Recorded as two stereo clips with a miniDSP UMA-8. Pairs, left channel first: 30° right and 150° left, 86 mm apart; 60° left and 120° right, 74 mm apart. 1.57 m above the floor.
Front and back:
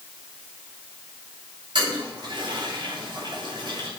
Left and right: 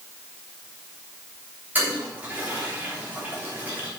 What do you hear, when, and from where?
1.8 s a toilet flushing: 175° left, 3 m